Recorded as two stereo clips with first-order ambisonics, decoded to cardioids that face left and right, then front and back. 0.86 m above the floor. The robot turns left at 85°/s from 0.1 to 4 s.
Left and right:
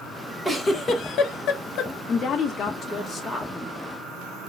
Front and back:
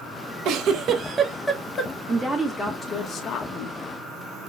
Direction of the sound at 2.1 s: 120° left.